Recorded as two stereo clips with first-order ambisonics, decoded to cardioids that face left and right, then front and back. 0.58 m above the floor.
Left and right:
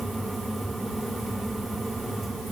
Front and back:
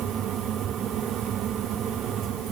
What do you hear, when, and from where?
Only background noise.